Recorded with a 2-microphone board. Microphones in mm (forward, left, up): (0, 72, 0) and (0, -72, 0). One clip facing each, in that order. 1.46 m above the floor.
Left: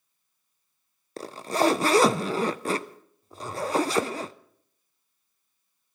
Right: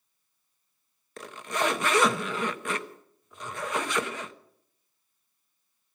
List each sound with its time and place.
1.2 s a zipper: 35° left (ahead or behind), 0.6 m